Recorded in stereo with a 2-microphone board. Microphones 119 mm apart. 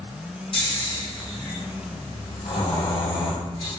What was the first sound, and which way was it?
Snoring, 45° left (ahead or behind).